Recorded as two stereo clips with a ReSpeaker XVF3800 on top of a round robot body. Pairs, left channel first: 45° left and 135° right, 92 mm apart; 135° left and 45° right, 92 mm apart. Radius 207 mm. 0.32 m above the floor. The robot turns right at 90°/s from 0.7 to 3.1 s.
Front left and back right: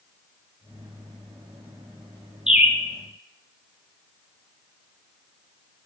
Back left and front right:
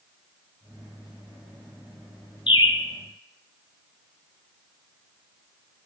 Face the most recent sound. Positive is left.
turn(degrees=-160)